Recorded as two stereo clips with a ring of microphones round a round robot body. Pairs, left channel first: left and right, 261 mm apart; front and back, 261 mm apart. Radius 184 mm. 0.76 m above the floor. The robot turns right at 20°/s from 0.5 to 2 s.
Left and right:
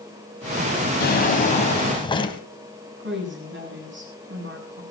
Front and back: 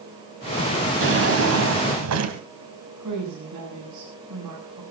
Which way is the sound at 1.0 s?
145° left.